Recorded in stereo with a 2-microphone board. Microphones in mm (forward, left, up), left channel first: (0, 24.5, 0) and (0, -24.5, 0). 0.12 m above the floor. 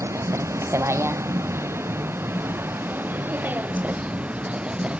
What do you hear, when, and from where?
0.0 s a vehicle: 80° right; by 5.0 s 25° right (ahead or behind)